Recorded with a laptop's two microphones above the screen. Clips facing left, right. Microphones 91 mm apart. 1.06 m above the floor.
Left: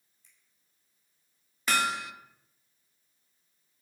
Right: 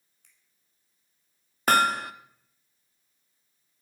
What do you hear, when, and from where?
0.2 s a finger snap: 75° right (ahead or behind), 4.5 m
1.7 s hammering: 55° right (ahead or behind), 0.7 m